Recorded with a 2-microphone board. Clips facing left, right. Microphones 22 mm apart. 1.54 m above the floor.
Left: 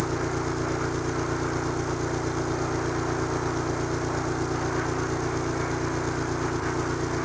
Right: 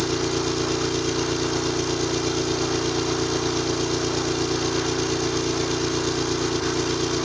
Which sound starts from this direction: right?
An engine running, at 0.0 s.